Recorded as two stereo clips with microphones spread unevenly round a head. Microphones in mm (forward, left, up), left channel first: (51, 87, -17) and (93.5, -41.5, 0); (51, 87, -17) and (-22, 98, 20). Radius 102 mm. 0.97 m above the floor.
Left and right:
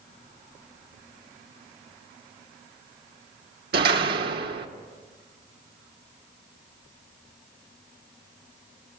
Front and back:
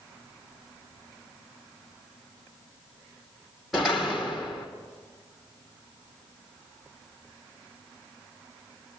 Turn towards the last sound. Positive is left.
turn(degrees=-95)